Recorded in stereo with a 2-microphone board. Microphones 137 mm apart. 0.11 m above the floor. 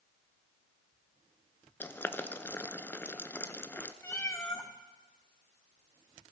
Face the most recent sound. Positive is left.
turn(degrees=15)  # may be behind; listen again after turning